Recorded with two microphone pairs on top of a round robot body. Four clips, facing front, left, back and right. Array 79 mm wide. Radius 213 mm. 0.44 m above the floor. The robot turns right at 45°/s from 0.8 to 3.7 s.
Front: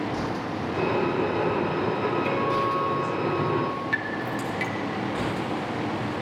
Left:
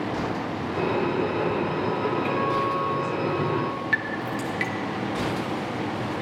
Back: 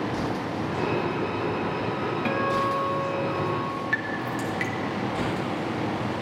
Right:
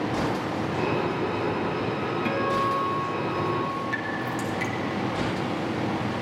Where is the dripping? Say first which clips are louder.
Left 2 dB, even; 125° left, 1.5 m.